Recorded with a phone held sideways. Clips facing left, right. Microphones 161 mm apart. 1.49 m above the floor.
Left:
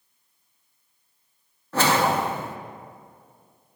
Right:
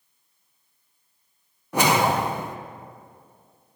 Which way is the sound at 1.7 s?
15° right (ahead or behind).